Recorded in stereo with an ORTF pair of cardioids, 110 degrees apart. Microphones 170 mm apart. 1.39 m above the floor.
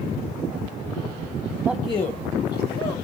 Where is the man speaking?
10° right, 0.5 m; by 3.0 s 65° left, 1.7 m.